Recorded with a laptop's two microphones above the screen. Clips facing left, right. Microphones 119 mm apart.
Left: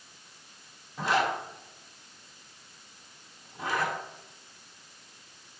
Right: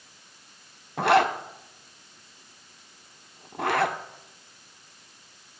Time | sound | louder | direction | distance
1.0 | a zipper | right 7 dB | 70° right (ahead or behind) | 1.1 m